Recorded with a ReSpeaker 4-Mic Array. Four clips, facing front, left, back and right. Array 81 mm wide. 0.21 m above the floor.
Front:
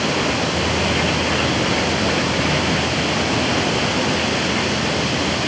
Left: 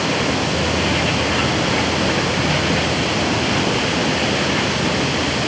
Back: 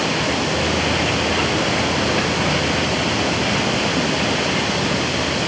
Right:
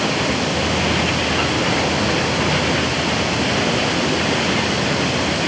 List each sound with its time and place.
Only background noise.